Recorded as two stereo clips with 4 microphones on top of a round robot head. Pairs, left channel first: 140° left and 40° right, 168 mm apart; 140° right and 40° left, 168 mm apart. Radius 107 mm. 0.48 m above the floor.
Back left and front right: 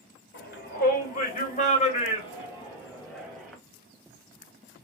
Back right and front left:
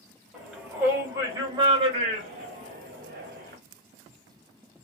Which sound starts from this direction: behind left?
A shout, at 0.3 s.